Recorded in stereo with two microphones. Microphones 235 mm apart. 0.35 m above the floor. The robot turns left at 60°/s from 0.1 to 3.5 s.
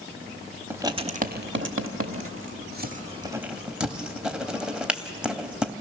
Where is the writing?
10° right (ahead or behind), 0.8 m; by 5.7 s 5° right (ahead or behind), 0.8 m.